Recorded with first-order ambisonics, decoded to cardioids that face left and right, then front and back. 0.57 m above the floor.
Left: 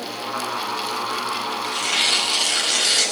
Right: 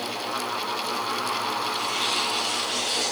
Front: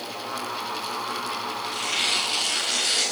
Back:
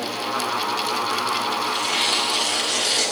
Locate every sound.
1.6 s tearing paper: 85° left, 4 m